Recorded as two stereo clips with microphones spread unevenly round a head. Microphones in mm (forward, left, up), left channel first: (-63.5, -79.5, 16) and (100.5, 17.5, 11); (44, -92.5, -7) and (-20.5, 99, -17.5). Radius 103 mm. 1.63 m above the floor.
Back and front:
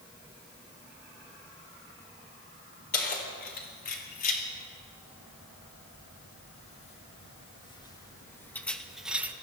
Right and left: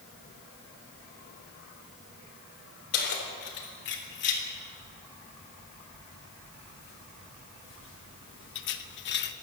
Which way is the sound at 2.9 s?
110° right.